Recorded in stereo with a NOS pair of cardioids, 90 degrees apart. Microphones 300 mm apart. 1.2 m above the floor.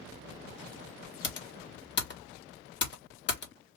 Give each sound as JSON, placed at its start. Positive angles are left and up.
{"t": 1.2, "sound": "typing on a keyboard", "azimuth_deg": 35, "distance_m": 1.1}